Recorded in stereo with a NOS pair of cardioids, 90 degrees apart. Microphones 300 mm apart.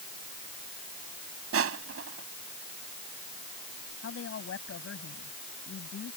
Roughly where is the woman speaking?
Ahead left.